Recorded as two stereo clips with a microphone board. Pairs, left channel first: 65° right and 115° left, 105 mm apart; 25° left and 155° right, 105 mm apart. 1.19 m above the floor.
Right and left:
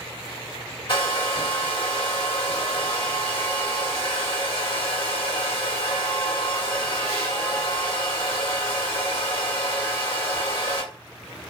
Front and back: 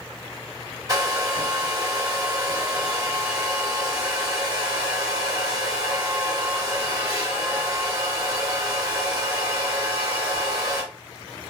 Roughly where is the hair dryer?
Right.